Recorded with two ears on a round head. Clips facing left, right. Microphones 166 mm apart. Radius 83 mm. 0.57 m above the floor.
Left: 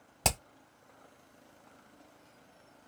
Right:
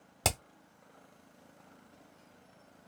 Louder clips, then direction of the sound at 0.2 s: Even; 5° right (ahead or behind).